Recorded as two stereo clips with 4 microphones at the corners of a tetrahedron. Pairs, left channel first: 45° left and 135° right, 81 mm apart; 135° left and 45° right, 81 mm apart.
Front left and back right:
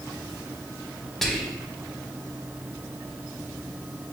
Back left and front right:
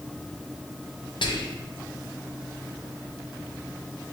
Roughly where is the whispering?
Behind left.